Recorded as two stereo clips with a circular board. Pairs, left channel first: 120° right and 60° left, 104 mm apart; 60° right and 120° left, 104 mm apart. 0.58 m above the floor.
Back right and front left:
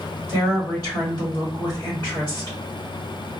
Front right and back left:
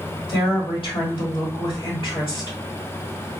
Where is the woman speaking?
75° right, 1.6 m.